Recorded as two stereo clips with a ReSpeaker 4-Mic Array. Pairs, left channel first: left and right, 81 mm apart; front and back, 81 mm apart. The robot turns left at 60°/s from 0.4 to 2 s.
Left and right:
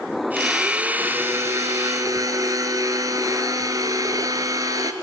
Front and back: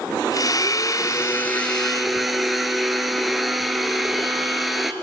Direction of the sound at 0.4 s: 5° left.